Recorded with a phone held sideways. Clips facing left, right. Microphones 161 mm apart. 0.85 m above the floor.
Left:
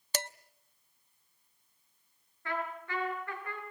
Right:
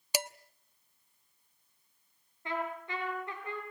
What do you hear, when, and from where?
0.1 s dishes clattering: 10° right (ahead or behind), 0.6 m
2.5 s a trumpet: 20° right (ahead or behind), 5.5 m